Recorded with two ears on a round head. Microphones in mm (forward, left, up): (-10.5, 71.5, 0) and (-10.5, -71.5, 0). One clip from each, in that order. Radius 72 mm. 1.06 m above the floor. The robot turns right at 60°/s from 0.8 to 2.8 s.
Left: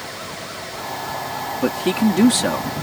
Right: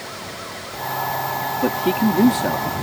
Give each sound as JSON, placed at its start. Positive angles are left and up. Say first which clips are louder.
{"t": 1.6, "sound": "a man speaking", "louder": "left 1 dB", "azimuth_deg": 20}